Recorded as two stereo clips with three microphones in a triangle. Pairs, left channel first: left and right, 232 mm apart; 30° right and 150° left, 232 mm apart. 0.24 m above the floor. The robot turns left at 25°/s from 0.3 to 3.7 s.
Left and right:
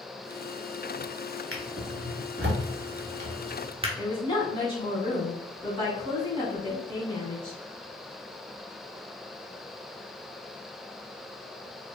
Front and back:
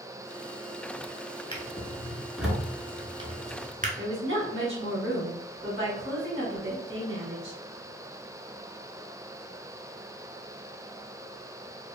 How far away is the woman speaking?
About 1.7 m.